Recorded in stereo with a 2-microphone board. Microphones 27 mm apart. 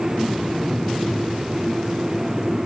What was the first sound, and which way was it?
Only background noise.